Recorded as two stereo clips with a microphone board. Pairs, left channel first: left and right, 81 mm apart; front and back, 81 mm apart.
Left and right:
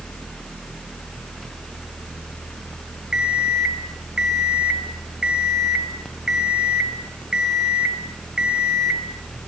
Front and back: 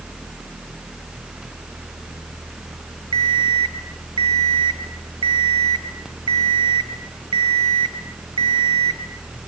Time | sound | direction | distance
3.1 | an alarm clock | 170° right | 1.8 m